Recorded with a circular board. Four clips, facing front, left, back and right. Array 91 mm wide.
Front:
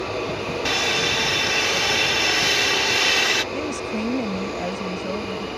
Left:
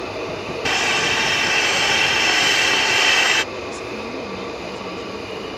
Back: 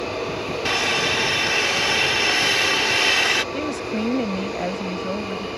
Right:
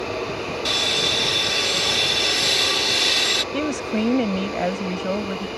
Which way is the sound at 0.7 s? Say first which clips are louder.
Left 4 dB, back 2 dB; 95° left.